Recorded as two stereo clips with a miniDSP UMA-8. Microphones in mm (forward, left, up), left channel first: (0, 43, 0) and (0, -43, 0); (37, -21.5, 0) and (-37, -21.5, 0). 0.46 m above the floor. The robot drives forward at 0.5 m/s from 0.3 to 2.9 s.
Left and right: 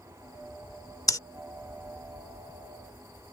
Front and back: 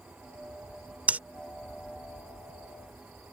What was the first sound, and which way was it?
Breathing, 115° left.